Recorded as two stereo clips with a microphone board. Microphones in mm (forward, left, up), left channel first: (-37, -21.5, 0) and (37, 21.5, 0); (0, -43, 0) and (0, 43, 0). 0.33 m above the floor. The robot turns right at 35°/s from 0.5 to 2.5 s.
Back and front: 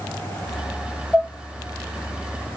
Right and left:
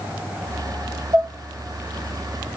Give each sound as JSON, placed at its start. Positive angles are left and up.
{"t": 1.1, "sound": "dishes clattering", "azimuth_deg": 125, "distance_m": 5.0}